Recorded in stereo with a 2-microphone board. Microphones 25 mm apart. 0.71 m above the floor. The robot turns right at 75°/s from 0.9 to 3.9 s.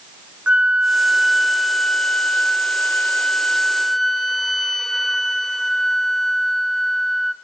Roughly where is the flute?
Ahead right.